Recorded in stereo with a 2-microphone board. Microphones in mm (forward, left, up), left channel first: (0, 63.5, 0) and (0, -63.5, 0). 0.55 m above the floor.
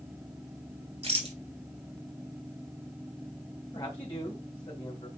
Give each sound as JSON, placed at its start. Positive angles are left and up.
{"t": 1.0, "sound": "a rattle", "side_deg": -50, "distance_m": 2.5}
{"t": 3.7, "sound": "a man speaking", "side_deg": 35, "distance_m": 3.0}